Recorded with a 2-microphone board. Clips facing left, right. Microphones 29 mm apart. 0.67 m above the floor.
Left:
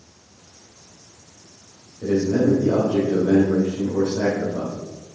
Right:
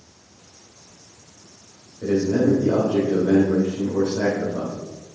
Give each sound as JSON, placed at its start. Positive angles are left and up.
{"t": 2.0, "sound": "a man speaking", "side_deg": -30, "distance_m": 3.0}